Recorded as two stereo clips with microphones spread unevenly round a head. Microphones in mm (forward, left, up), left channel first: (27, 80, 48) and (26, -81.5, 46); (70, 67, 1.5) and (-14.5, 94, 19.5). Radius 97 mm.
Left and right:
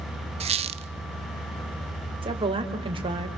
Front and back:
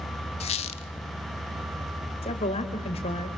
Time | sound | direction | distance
0.4 | a squeak | 40° right | 0.9 m
2.2 | a woman speaking | 30° right | 3.5 m